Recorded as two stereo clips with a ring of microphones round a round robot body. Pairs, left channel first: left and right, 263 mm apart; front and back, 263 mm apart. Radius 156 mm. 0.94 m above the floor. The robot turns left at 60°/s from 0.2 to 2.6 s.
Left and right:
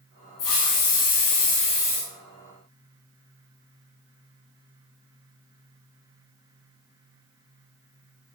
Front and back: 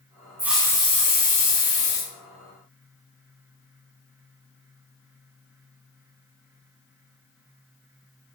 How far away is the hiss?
About 3 m.